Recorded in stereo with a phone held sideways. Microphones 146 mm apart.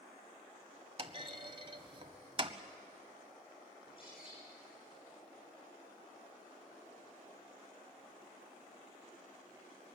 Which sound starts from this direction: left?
A bird, at 3.8 s.